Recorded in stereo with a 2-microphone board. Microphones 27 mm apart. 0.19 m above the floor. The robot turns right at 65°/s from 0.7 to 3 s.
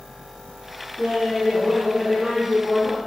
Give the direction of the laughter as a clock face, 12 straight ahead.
4 o'clock.